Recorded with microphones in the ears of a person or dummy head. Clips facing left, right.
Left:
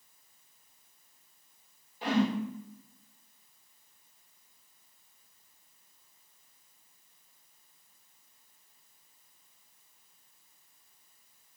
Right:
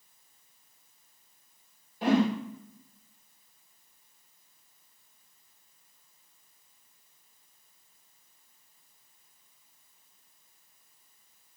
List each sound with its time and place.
2.0 s a whoosh: 50° right (ahead or behind), 2.5 m